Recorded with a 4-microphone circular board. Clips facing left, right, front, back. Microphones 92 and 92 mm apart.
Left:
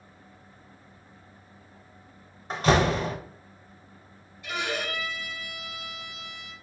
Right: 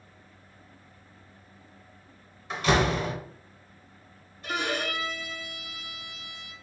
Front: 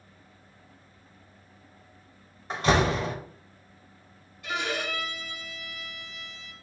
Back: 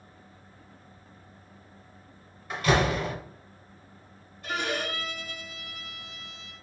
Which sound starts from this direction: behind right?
A violin, at 4.4 s.